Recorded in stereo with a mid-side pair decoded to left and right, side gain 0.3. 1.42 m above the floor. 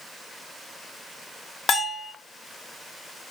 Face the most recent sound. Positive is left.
turn(degrees=60)